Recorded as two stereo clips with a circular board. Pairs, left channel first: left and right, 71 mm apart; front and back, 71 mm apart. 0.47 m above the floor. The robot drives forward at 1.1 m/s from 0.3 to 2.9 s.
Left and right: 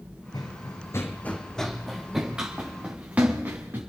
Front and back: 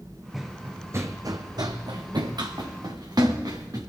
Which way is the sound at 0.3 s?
95° left.